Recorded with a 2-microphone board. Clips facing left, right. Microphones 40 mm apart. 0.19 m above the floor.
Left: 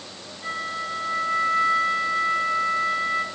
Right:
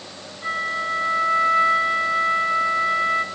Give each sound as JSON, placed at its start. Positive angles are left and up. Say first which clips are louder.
{"t": 0.4, "sound": "a flute", "louder": "right 5 dB", "side_deg": -30, "distance_m": 2.5}